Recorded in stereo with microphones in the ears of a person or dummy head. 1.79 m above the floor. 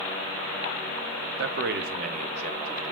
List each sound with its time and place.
1.4 s a man speaking: 75° right (ahead or behind), 0.8 m; by 2.9 s 30° right (ahead or behind), 1.7 m